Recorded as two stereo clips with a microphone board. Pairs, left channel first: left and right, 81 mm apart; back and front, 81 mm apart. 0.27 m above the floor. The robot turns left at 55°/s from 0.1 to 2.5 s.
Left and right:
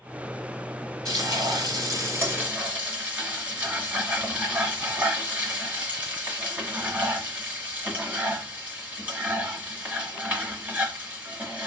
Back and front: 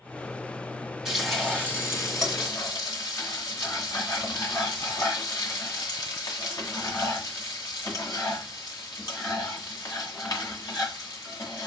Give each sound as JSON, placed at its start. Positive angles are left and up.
{"t": 1.1, "sound": "frying", "azimuth_deg": -80, "distance_m": 1.9}